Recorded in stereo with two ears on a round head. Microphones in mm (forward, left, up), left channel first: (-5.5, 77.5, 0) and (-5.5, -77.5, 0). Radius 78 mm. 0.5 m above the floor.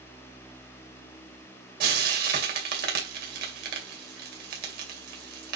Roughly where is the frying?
Right.